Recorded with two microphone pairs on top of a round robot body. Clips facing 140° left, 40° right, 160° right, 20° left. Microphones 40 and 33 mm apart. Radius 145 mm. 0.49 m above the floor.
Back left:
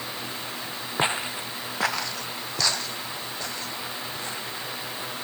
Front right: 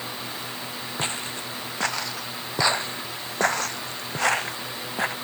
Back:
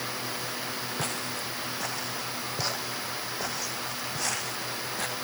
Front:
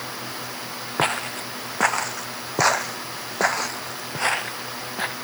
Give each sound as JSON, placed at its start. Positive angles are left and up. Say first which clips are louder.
{"t": 1.0, "sound": "footsteps", "louder": "back left 6 dB, front 13 dB", "azimuth_deg": 70}